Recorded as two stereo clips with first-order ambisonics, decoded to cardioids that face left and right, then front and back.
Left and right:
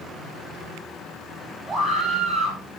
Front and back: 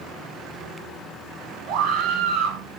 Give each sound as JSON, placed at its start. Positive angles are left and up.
{"t": 1.7, "sound": "a scream", "azimuth_deg": -170, "distance_m": 7.0}